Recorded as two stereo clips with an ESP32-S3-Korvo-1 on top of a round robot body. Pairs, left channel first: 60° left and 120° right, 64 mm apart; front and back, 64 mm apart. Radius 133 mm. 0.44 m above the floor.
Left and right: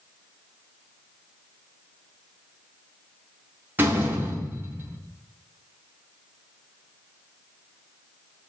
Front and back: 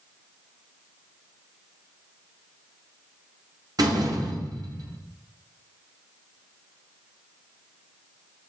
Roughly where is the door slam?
Behind.